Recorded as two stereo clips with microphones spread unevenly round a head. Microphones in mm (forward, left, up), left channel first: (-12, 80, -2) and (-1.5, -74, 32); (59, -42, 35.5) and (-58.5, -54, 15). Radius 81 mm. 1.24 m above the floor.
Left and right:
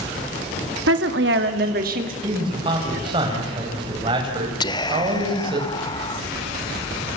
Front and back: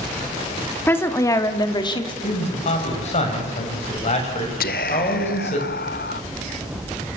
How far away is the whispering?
About 0.7 m.